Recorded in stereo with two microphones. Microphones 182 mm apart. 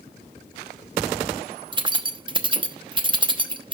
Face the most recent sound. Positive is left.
turn(degrees=-25)  # may be behind; listen again after turning